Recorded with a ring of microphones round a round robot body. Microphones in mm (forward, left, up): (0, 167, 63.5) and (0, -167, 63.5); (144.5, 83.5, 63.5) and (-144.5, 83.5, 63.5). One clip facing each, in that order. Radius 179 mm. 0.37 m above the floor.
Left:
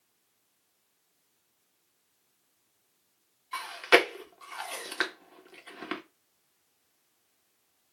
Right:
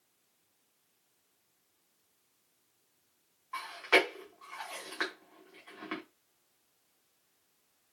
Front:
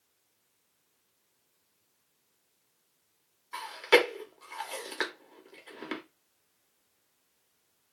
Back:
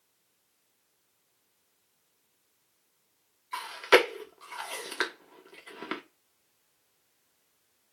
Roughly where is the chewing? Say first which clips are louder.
Left 5 dB, back 1 dB; left.